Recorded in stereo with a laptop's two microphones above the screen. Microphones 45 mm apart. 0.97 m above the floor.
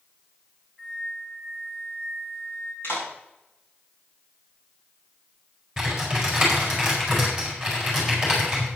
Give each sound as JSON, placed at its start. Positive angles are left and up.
{"t": 0.8, "sound": "a flute", "side_deg": -15, "distance_m": 2.5}
{"t": 2.8, "sound": "a clap", "side_deg": 60, "distance_m": 6.5}
{"t": 5.8, "sound": "typing on a keyboard", "side_deg": -10, "distance_m": 4.5}